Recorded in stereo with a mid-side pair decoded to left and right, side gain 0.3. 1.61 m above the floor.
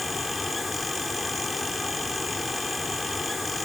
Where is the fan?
40° left.